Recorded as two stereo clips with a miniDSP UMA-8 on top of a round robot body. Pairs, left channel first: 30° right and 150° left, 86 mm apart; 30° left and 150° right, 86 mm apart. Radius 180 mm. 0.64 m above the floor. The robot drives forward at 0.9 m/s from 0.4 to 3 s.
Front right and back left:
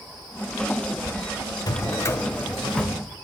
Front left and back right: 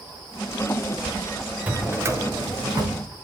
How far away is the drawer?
About 1.8 m.